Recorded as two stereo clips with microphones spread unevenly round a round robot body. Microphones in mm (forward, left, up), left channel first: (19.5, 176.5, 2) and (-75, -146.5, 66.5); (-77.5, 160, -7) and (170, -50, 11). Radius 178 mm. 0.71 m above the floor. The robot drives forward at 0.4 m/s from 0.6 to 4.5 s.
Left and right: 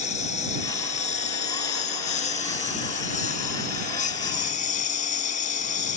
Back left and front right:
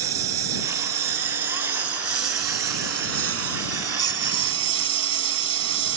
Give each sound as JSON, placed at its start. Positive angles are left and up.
{"t": 0.0, "sound": "a lawn mower", "azimuth_deg": 0}